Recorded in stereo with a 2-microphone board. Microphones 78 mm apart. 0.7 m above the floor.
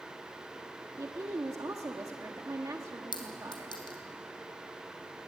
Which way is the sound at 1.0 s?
45° right (ahead or behind).